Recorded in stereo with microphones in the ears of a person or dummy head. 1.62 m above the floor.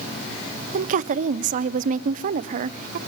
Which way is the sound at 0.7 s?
45° right (ahead or behind).